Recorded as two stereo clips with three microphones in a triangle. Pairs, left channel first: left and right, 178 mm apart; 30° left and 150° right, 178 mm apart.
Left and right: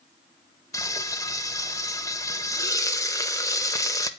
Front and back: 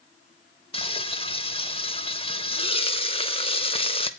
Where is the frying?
35° left, 0.8 m.